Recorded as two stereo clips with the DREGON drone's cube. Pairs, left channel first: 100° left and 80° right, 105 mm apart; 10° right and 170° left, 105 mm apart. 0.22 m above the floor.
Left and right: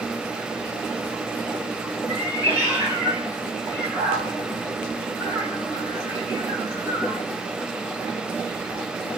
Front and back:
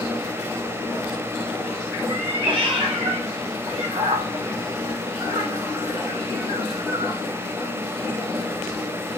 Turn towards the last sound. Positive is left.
turn(degrees=-150)